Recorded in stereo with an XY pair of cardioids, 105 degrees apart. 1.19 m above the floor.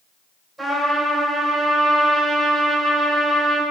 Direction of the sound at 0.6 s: 25° right.